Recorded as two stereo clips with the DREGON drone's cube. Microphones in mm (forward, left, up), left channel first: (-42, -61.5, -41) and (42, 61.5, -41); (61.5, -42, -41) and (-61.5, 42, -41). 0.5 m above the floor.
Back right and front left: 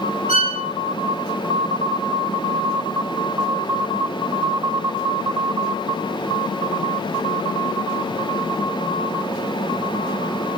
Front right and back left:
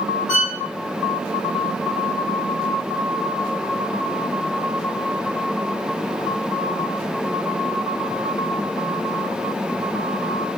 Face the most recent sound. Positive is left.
turn(degrees=-140)